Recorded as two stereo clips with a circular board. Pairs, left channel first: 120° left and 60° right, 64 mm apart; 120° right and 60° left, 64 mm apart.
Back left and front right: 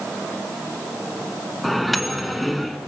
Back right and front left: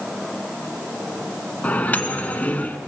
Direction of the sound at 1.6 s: 150° right.